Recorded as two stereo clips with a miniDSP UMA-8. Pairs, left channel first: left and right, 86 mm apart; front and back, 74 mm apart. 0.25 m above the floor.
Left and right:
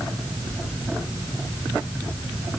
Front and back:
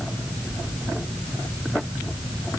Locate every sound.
Only background noise.